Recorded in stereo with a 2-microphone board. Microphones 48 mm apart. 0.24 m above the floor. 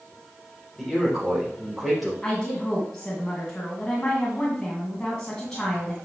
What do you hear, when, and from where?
0.8 s a man speaking: 5° left (ahead or behind), 4 m
2.2 s a woman speaking: 15° left (ahead or behind), 2.0 m